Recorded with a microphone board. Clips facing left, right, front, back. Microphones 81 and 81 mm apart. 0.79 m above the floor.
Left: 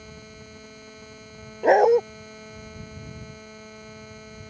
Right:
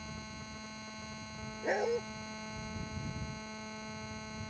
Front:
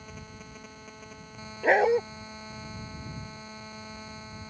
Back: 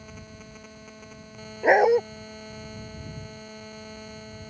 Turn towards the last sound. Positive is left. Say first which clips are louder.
# left 16 dB, back 4 dB
turn(degrees=105)